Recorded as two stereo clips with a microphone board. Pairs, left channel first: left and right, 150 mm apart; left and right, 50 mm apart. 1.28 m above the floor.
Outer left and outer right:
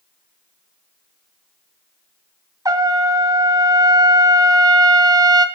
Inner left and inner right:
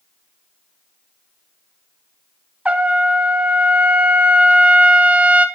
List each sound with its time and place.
2.6 s a trumpet: 25° right (ahead or behind), 1.5 m